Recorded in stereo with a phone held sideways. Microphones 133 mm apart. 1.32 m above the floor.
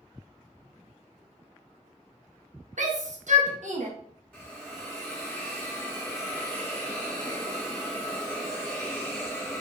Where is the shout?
65° right (ahead or behind), 1.4 m.